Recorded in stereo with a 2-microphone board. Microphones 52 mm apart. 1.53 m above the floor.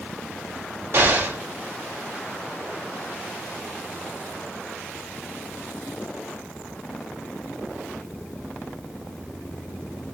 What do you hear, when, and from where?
0.9 s an explosion: 55° right (ahead or behind), 1.1 m